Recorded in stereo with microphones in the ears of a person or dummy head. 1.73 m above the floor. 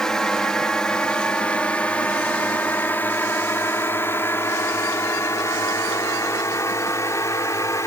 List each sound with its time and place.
0.0 s a drone: 5° right (ahead or behind); by 7.9 s 10° left (ahead or behind)